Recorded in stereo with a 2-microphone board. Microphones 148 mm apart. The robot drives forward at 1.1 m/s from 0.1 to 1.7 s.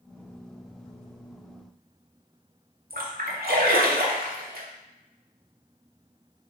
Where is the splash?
85° right, 0.8 m.